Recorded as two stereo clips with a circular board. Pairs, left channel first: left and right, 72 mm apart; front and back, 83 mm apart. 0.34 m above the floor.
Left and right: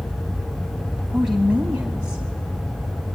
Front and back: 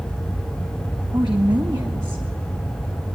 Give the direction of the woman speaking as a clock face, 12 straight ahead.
6 o'clock.